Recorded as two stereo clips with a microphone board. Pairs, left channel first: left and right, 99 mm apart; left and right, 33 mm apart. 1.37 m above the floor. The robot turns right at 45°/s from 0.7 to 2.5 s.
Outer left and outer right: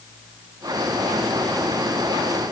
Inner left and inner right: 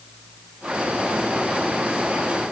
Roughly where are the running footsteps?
I don't hear running footsteps.